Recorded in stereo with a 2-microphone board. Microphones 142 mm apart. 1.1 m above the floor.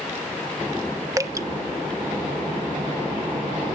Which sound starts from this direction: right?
Dripping, at 1.2 s.